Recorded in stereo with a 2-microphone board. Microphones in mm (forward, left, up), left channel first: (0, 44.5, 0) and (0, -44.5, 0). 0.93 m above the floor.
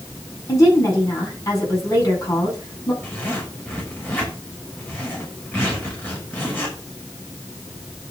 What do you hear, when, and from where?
0.5 s a woman speaking: 40° left (ahead or behind), 9 m
3.0 s a zipper: 20° left (ahead or behind), 5.5 m